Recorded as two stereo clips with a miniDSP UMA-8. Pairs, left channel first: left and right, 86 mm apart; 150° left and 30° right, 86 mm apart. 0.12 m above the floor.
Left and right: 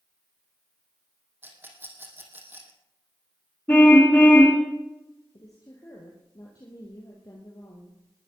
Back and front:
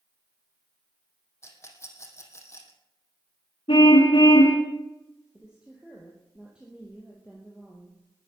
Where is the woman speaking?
50° left, 3 m.